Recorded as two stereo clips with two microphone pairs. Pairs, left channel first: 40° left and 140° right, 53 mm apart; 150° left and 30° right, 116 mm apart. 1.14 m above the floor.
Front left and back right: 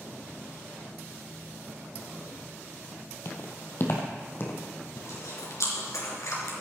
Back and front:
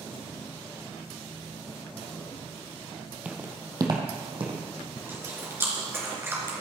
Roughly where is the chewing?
Ahead left.